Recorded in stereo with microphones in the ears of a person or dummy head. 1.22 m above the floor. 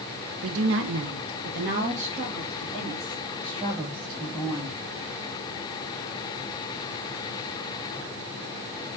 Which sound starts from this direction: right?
A woman speaking, at 0.4 s.